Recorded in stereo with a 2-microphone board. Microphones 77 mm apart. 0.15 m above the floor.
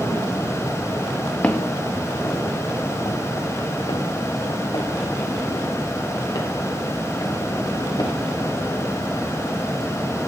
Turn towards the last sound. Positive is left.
turn(degrees=65)  # may be behind; listen again after turning